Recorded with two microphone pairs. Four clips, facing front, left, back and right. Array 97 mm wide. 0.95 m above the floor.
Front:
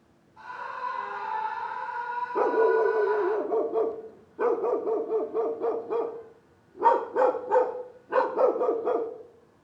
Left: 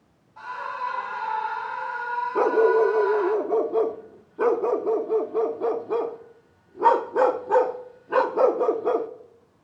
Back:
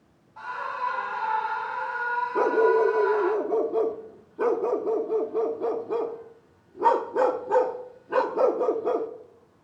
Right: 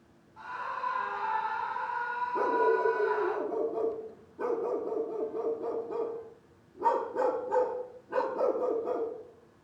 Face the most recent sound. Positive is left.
turn(degrees=70)